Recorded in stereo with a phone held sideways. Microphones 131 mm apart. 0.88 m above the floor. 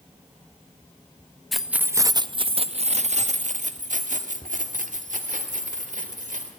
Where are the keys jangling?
Centre (ahead or behind), 0.6 m; by 6.5 s 85° right, 2.5 m.